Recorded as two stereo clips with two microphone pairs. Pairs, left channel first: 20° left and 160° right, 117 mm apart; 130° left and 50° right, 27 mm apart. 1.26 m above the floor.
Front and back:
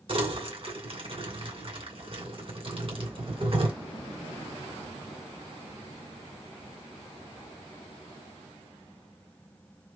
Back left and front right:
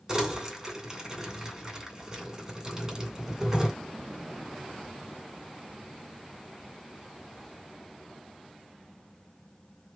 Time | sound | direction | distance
0.1 | crumpling | 120° right | 2.5 m